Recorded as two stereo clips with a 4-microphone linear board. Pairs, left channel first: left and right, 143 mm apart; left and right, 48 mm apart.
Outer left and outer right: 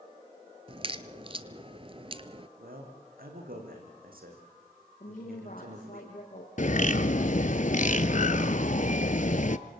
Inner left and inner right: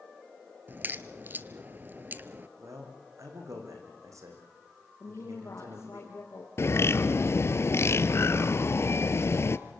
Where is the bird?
55° left (ahead or behind), 0.8 m.